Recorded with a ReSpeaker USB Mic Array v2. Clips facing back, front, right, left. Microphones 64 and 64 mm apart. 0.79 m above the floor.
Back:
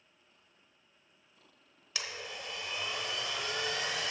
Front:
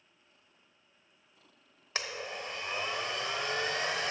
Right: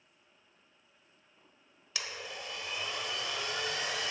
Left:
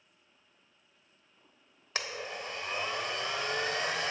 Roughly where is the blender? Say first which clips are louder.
Front 4 dB, left 4 dB; ahead left.